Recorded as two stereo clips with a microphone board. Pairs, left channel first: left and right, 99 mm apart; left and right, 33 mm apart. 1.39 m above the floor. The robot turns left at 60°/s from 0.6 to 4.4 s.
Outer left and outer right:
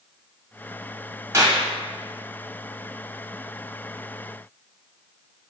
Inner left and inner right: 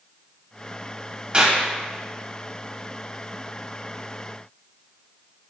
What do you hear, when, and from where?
1.3 s a clap: 30° right (ahead or behind), 1.4 m; by 1.6 s 45° right (ahead or behind), 1.4 m